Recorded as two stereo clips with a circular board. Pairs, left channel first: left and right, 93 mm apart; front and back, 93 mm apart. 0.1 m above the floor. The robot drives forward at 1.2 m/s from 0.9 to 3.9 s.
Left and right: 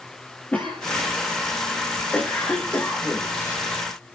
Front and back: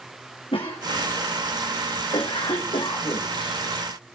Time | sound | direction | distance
0.5 | a cough | 15° left | 7 m